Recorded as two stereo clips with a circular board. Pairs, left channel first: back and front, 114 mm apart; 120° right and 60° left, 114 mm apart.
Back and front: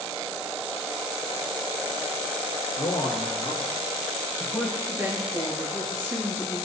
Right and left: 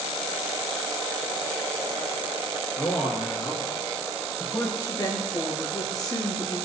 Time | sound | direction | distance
2.8 | a man speaking | 175° right | 2 m
4.8 | a woman speaking | 65° right | 2.5 m